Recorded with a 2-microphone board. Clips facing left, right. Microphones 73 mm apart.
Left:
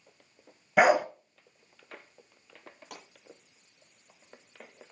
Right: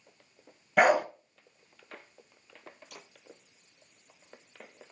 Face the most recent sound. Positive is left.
turn(degrees=80)